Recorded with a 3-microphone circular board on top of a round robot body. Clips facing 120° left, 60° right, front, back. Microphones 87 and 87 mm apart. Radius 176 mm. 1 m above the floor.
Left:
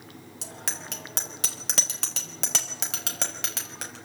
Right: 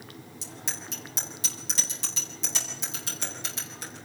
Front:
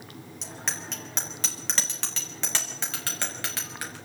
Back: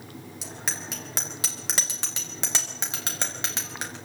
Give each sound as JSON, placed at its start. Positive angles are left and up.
{"t": 0.4, "sound": "a bicycle bell", "azimuth_deg": 95, "distance_m": 4.0}